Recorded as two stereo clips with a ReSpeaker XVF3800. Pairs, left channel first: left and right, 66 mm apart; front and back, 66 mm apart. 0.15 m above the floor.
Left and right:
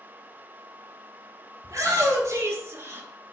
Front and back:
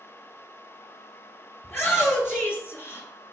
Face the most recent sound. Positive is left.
turn(degrees=-40)